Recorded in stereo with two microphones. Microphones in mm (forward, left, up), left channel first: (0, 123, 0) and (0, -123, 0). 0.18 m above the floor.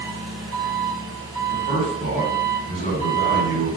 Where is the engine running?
65° right (ahead or behind), 1.7 m.